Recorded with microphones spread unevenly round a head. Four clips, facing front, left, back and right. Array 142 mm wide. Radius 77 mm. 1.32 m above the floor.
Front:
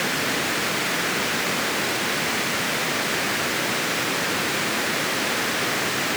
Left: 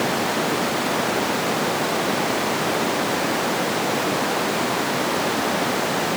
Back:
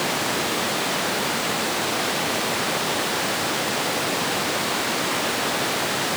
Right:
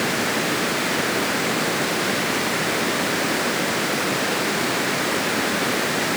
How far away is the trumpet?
No trumpet in this recording.